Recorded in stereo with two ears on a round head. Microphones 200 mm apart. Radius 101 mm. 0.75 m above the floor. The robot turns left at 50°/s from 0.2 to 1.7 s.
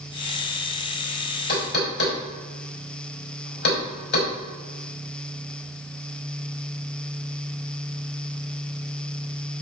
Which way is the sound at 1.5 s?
45° left (ahead or behind).